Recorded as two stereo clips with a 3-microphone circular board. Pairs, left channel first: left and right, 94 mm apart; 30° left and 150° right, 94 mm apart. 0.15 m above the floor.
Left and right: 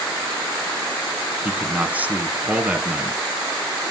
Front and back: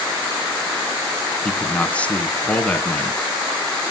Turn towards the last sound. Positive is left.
turn(degrees=-35)